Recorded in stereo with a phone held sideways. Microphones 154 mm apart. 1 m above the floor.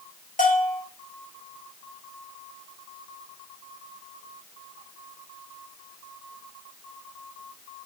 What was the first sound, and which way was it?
A bell, 60° left (ahead or behind).